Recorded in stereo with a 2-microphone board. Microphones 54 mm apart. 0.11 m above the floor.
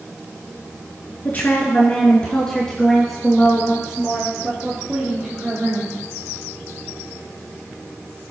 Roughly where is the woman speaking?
Left.